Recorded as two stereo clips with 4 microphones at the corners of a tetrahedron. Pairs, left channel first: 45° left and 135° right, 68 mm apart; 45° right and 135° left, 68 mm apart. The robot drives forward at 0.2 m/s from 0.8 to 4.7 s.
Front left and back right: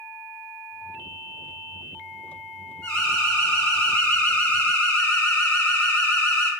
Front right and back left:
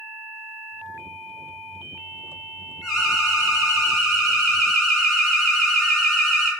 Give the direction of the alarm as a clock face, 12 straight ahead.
11 o'clock.